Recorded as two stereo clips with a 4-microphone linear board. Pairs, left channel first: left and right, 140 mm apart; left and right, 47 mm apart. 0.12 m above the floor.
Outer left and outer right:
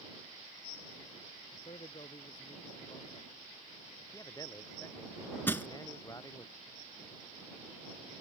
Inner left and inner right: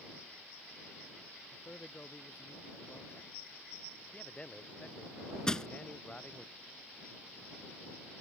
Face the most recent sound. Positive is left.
turn(degrees=15)  # may be behind; listen again after turning